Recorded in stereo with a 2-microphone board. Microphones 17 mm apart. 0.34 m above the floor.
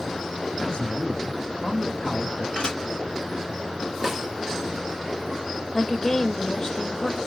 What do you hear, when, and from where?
0.6 s a man speaking: 40° left (ahead or behind), 3.5 m; by 2.5 s 60° left (ahead or behind), 3 m
2.6 s dishes clattering: 60° left (ahead or behind), 3 m
4.0 s a snare drum: 20° right (ahead or behind), 1.6 m
5.7 s a woman speaking: 30° left (ahead or behind), 1.1 m